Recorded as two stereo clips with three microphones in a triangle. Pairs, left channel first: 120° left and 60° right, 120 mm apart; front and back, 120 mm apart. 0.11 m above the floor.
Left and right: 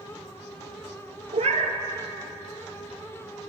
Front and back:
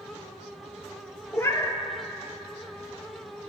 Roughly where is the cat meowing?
Ahead right.